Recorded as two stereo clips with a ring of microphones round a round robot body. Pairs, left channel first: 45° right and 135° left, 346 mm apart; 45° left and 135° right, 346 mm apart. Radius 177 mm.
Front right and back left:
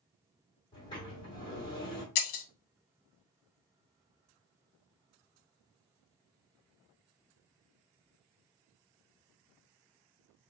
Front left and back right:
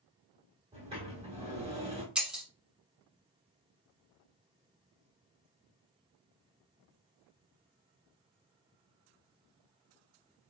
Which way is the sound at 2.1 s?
45° right.